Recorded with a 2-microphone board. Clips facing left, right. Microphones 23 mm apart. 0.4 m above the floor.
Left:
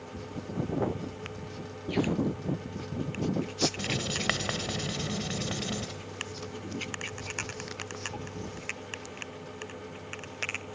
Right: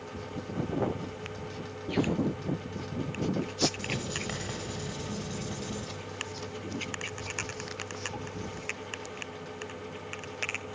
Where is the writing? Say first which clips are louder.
Left 3 dB; 50° left (ahead or behind), 1.2 m.